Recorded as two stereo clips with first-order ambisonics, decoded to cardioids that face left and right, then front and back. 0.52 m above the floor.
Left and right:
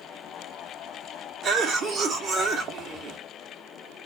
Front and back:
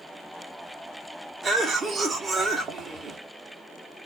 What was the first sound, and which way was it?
A cough, 120° right.